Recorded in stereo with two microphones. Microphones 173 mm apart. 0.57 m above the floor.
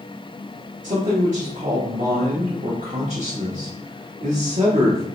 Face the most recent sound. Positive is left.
turn(degrees=-50)  # may be behind; listen again after turning